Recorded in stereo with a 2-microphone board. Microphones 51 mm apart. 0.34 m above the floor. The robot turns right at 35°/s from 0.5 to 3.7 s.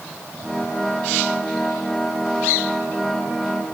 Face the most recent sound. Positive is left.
No sound to turn to.